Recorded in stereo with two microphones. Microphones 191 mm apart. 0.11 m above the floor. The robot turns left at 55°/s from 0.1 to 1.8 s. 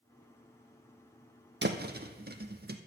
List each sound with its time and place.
1.6 s a thud: 70° right (ahead or behind), 0.8 m; by 2.8 s 60° right (ahead or behind), 0.8 m